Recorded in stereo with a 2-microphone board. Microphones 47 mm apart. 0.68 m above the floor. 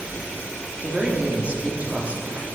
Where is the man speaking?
30° right (ahead or behind), 1.2 m.